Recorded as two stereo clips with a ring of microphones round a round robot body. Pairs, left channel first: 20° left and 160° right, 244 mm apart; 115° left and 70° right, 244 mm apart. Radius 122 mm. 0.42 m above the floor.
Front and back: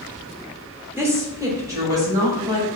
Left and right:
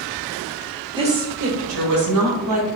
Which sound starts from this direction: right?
A woman speaking, at 1.0 s.